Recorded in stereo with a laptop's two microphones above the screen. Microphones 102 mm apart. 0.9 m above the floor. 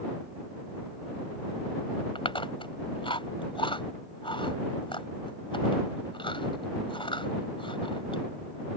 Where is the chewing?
55° left (ahead or behind).